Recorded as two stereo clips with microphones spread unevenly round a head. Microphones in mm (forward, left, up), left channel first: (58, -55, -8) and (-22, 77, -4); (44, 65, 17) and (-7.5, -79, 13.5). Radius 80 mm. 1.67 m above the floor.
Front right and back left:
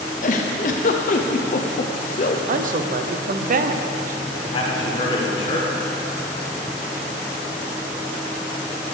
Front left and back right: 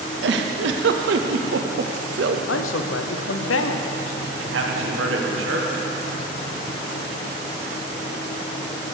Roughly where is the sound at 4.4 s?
Behind right.